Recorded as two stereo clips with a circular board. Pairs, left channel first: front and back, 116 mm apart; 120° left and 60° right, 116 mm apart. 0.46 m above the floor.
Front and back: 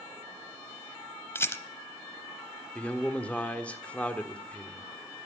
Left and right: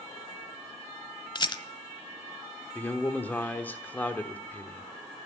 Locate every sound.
1.4 s a rattle: 70° left, 0.8 m
2.8 s a man speaking: 65° left, 1.2 m